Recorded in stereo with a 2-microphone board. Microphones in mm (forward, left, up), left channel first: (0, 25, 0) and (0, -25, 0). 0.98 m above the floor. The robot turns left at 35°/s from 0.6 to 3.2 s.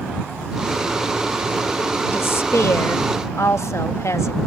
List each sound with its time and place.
2.1 s a woman speaking: 130° left; by 4.4 s 90° left